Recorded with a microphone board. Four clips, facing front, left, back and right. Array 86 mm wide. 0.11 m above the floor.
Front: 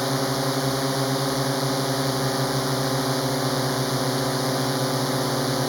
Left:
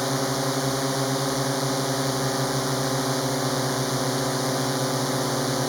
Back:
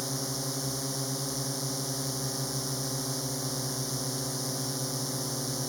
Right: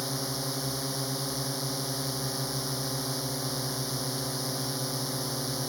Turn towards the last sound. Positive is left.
turn(degrees=40)